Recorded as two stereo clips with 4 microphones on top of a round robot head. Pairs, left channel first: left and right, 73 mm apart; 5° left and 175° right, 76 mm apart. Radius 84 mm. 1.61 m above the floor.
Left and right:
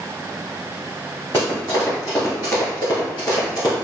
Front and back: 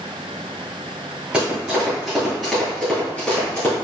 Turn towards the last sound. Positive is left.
turn(degrees=60)